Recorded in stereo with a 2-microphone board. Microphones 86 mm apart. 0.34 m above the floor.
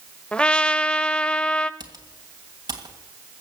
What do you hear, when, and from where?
0.3 s a trumpet: 10° left (ahead or behind), 0.7 m
1.8 s typing on a keyboard: 45° right (ahead or behind), 2.5 m